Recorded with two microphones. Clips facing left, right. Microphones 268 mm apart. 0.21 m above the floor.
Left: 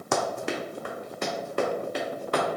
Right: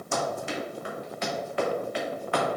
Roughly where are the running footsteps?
Left.